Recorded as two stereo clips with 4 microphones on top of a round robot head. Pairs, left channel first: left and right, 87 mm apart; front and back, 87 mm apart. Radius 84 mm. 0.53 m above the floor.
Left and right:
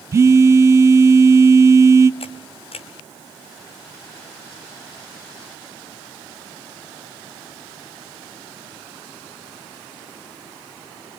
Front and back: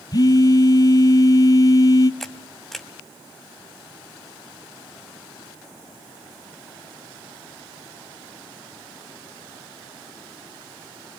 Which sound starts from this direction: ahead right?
A phone buzzing, at 0.1 s.